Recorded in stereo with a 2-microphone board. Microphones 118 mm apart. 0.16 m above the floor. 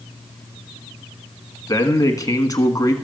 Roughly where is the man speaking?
Left.